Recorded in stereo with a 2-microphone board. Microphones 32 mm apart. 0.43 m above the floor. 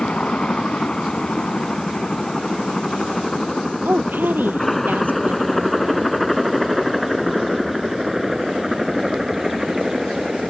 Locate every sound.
0.0 s a helicopter: 35° left (ahead or behind); by 10.5 s 10° right (ahead or behind)
3.9 s a woman speaking: 85° right